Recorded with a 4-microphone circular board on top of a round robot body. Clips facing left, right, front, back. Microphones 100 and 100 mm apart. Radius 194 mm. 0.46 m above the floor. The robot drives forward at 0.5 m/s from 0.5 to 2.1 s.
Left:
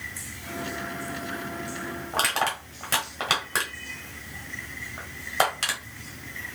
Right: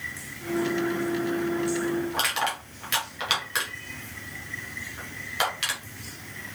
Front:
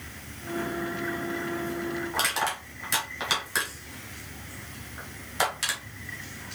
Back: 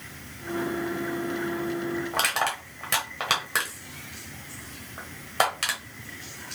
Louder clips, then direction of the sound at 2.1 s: Left 2 dB, back 1 dB; 145° left.